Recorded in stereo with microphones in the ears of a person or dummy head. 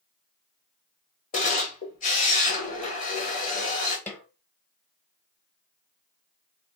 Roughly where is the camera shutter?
Left.